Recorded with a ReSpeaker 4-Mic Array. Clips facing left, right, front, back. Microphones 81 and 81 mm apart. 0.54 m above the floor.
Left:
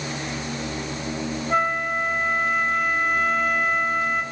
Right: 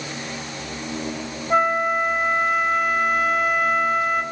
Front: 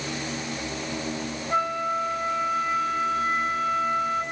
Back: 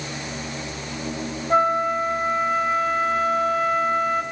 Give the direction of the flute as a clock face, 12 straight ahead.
6 o'clock.